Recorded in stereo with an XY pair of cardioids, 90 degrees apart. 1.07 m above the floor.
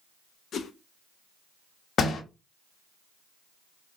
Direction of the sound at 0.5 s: 65° left.